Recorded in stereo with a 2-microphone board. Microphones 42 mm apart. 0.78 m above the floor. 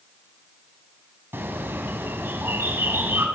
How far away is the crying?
No crying in this recording.